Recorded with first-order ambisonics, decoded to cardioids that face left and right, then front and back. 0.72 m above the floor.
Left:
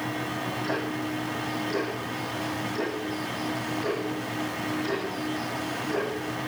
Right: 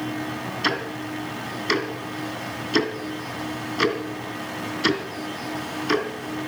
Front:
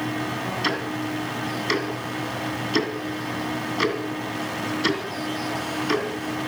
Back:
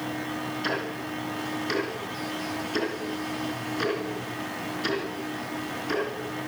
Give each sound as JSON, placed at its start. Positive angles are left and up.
{"t": 0.6, "sound": "ticking", "azimuth_deg": -70, "distance_m": 2.5}